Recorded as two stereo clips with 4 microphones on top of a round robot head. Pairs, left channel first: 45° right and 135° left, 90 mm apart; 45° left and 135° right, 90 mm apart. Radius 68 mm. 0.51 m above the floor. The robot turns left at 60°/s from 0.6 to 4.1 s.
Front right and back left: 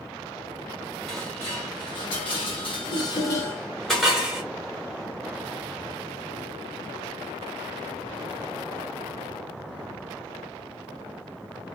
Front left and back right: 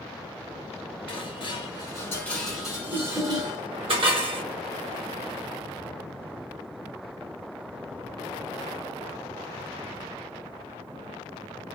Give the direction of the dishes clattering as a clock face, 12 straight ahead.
11 o'clock.